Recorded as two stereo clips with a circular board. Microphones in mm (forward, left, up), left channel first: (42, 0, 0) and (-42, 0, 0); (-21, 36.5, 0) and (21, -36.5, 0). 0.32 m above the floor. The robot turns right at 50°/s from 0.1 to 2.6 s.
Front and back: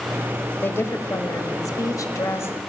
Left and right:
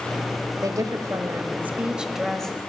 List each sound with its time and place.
0.6 s a woman speaking: 50° right, 1.4 m; by 2.6 s 50° left, 1.4 m